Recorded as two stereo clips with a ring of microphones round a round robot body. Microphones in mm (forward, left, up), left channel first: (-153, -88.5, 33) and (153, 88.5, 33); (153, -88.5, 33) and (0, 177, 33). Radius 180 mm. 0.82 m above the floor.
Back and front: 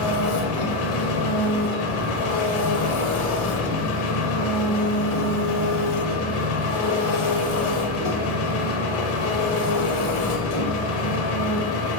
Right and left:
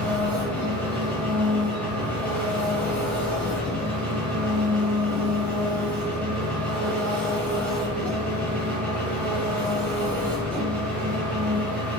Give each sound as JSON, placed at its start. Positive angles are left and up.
{"t": 0.0, "sound": "an engine running", "azimuth_deg": -145, "distance_m": 0.8}